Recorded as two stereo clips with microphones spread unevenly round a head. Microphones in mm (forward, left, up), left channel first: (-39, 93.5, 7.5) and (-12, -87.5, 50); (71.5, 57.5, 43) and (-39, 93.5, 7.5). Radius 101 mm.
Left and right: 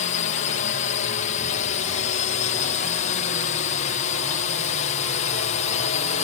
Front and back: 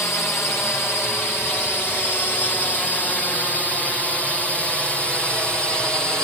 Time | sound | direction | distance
0.0 | a drone | 60° left | ?